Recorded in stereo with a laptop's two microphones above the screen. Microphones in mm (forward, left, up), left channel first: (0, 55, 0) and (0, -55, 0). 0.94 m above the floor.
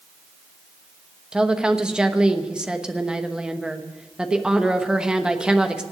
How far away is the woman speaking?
About 1.0 m.